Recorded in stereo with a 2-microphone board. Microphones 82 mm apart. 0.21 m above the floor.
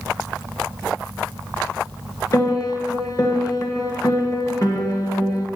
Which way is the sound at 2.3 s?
45° left (ahead or behind).